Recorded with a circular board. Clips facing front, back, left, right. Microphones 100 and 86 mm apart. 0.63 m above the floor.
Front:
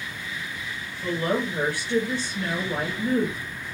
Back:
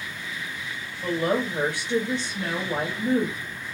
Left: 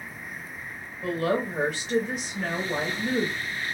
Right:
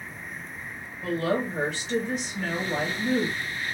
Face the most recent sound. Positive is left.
turn(degrees=170)